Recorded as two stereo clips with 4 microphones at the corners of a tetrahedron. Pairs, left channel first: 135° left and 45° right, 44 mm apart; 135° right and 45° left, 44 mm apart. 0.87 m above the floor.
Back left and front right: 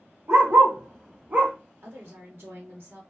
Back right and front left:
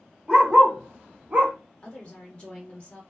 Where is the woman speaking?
70° right, 1.2 m.